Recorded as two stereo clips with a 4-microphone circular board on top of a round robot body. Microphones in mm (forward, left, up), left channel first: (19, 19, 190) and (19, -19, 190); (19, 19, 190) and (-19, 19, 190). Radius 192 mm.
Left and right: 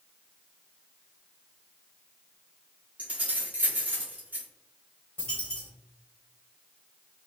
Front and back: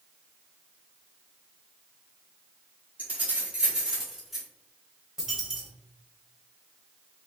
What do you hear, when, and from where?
3.0 s keys jangling: 140° right, 1.9 m; by 4.5 s 90° right, 1.8 m
5.2 s a dropped coin: 110° left, 1.6 m